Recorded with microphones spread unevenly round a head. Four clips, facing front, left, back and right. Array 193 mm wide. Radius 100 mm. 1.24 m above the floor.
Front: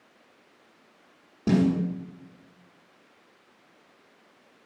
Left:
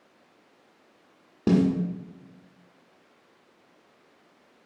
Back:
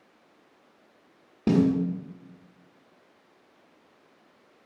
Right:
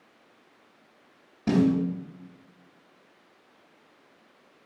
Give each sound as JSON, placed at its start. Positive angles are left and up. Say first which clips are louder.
{"t": 1.5, "sound": "a snare drum", "louder": "even, back 1 dB", "azimuth_deg": 115, "distance_m": 1.3}